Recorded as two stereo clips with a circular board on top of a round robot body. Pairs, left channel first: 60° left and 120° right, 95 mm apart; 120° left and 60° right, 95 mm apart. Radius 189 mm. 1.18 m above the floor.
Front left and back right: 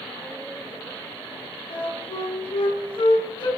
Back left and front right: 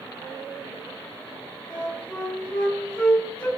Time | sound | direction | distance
1.7 | a flute | 55° left | 6 m